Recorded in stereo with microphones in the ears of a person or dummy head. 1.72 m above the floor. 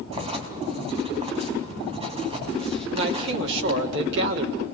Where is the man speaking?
60° right (ahead or behind), 4 m.